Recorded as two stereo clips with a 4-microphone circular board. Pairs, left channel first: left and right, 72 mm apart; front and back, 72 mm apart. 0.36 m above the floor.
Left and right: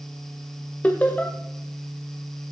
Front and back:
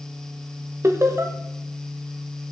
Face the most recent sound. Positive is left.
turn(degrees=150)